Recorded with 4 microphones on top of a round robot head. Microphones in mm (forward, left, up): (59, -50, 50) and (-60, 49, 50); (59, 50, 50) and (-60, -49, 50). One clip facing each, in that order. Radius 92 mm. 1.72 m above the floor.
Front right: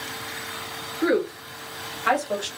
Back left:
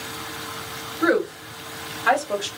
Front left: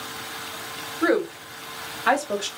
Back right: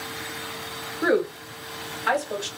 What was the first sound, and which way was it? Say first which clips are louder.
A woman speaking: back left 1 dB, front left 1 dB; 105° left.